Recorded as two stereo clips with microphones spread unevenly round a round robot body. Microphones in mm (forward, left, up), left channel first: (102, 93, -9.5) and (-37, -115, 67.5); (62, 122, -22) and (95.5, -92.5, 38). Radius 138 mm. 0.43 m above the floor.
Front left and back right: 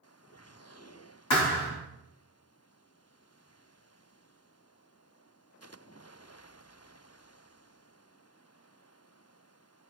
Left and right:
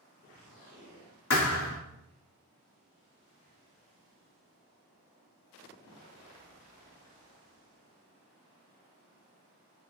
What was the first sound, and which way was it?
A thud, 75° left.